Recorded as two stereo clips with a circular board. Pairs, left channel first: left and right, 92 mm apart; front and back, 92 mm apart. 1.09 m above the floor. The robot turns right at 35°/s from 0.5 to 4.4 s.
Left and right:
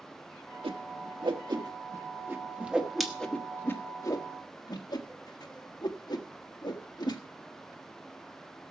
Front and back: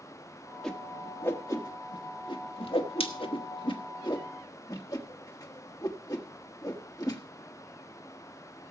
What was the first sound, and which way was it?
A whoosh, 85° right.